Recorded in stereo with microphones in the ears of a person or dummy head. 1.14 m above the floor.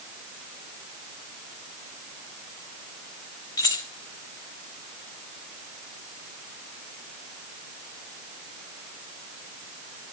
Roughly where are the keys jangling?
Left.